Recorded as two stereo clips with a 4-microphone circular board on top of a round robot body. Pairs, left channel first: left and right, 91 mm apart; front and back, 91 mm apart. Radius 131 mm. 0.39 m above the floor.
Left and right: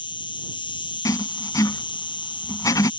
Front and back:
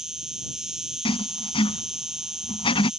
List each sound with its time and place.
0.0 s an insect: 95° left
1.1 s writing: 35° left